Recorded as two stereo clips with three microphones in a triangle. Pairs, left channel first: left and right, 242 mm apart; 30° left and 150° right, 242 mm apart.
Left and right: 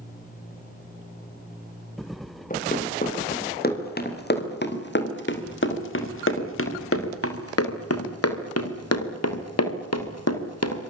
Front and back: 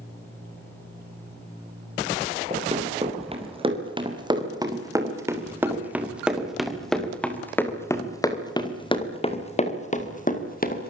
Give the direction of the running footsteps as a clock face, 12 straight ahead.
7 o'clock.